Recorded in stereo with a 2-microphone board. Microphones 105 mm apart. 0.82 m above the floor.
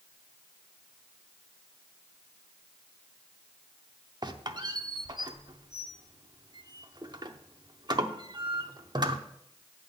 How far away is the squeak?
About 0.6 m.